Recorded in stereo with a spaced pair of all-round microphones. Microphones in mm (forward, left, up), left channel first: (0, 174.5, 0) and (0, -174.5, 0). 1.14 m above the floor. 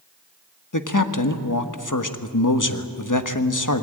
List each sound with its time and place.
0.7 s a man speaking: 60° left (ahead or behind), 1.3 m